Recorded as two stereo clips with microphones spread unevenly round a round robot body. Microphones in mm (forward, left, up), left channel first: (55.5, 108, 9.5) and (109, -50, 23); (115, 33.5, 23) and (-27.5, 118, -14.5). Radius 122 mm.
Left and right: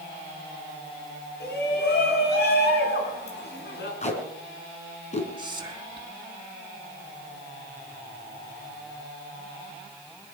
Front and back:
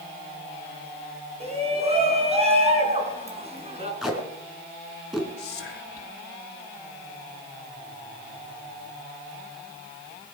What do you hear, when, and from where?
1.4 s a shout: 100° left, 4.5 m
4.0 s tape being pulled: 60° left, 4 m
5.4 s whispering: 10° right, 4 m